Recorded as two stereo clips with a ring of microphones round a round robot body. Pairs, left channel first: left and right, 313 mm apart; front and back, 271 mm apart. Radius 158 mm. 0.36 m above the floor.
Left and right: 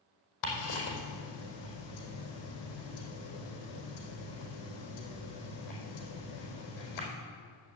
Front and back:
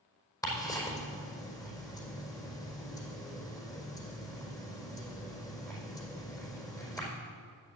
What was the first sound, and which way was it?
Ticking, 80° left.